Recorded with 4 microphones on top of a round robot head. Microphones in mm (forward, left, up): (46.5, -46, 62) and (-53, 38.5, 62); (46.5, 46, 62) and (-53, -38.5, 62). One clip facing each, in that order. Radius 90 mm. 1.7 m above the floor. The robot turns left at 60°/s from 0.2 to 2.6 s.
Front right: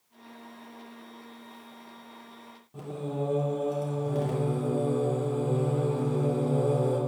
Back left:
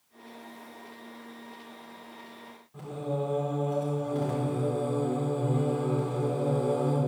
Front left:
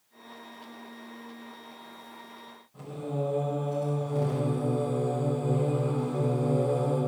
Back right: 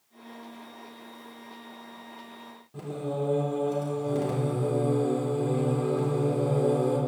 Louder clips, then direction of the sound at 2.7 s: Back left 1 dB, back right 2 dB; 100° right.